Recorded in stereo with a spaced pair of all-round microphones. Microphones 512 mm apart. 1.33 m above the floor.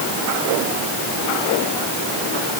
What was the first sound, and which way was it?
Only background noise.